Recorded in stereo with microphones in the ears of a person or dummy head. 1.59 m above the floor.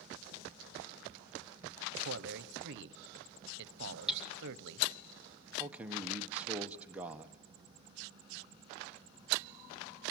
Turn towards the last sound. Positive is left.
turn(degrees=-10)  # may be behind; listen again after turning